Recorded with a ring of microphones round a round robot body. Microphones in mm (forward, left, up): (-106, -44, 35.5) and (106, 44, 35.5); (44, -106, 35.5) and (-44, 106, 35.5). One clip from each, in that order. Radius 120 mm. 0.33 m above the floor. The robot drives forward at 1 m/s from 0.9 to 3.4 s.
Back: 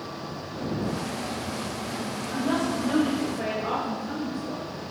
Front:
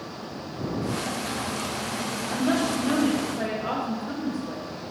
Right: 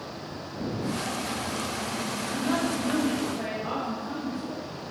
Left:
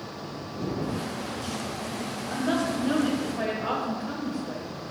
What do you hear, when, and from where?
2.3 s a woman speaking: 45° left, 2.5 m; by 4.6 s 80° left, 1.8 m